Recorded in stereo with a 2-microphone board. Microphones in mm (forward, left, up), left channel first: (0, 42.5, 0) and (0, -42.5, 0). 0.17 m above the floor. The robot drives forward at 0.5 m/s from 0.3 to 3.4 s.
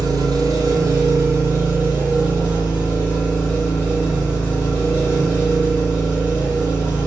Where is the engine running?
50° right (ahead or behind), 0.9 m; by 7.1 s 20° right (ahead or behind), 2 m.